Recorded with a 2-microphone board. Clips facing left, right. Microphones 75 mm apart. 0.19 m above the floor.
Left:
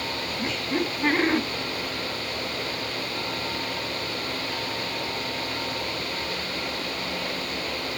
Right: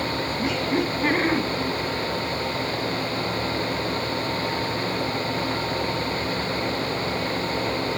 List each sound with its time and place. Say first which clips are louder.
0.4 s laughter: right 3 dB; centre (ahead or behind), 1.9 m